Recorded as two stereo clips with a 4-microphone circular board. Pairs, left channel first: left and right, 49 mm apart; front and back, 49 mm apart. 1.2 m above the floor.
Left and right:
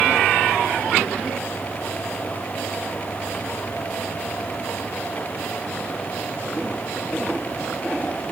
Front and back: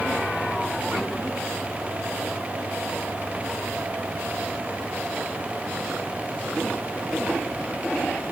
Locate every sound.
Only background noise.